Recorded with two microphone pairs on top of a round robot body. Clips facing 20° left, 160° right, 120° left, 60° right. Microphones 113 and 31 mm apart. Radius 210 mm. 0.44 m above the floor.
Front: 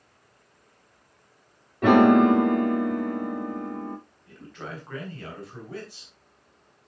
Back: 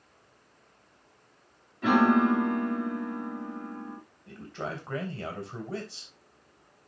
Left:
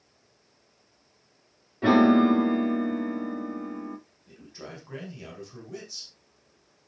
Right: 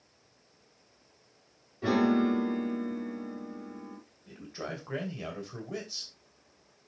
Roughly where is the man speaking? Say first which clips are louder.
Back 4 dB, right 5 dB; right.